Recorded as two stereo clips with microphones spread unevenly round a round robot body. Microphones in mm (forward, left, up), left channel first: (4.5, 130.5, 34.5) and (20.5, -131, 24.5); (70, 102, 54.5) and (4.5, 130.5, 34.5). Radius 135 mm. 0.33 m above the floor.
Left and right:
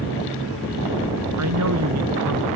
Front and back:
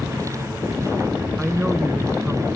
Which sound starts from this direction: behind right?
A woman speaking, at 1.4 s.